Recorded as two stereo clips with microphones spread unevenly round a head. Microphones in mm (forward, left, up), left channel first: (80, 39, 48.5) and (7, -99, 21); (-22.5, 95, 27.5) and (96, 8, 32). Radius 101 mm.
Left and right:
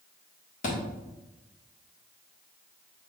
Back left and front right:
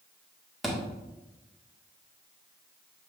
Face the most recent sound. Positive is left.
turn(degrees=50)